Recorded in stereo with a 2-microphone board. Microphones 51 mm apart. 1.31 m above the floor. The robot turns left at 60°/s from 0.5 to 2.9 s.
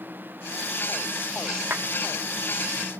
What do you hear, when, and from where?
1.7 s a clap: 45° right (ahead or behind), 2 m; by 1.9 s 40° right (ahead or behind), 2 m